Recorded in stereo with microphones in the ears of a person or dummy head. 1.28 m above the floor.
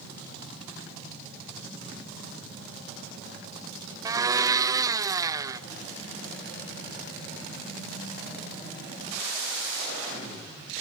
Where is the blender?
15° right (ahead or behind), 0.8 m.